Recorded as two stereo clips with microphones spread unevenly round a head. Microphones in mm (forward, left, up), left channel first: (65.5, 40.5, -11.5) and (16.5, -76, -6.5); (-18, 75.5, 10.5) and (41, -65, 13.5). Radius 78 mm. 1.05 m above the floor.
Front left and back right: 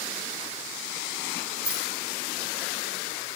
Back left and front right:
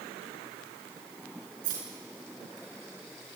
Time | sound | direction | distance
1.6 | keys jangling | 30° right | 8.5 m